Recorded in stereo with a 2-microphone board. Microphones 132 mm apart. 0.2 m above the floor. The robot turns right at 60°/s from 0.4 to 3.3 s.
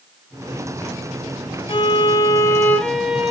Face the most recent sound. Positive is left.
turn(degrees=-165)